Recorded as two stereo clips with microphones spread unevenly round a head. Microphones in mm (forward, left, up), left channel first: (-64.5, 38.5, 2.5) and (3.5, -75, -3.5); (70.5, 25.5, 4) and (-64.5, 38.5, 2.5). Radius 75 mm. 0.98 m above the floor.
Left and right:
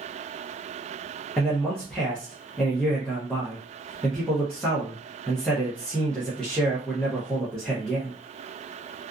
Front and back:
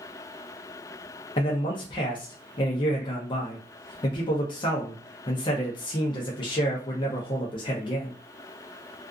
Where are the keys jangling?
I don't hear keys jangling.